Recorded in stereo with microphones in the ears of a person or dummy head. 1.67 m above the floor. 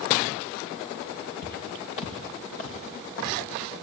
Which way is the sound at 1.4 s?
40° left (ahead or behind).